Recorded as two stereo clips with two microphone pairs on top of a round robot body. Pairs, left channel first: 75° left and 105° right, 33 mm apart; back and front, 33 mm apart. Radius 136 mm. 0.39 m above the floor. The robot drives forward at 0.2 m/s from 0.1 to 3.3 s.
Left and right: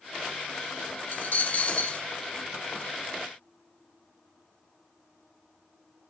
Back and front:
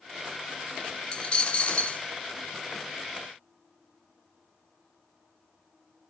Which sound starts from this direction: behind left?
A dropped coin, at 1.1 s.